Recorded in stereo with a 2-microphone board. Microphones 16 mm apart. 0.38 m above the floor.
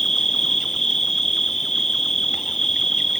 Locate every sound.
0.0 s an insect: 40° left (ahead or behind)